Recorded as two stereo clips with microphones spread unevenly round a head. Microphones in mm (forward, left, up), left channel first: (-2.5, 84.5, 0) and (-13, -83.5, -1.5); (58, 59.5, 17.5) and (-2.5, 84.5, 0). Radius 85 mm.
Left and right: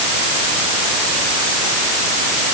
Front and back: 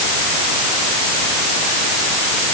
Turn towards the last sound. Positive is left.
No sound to turn to.